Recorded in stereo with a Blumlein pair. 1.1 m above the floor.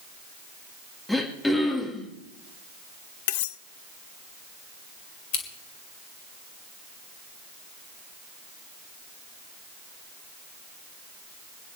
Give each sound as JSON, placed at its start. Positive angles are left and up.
{"t": 1.1, "sound": "throat clearing", "azimuth_deg": 5, "distance_m": 2.5}
{"t": 3.3, "sound": "cutlery clinking", "azimuth_deg": 50, "distance_m": 0.5}
{"t": 5.3, "sound": "scissors", "azimuth_deg": 50, "distance_m": 2.5}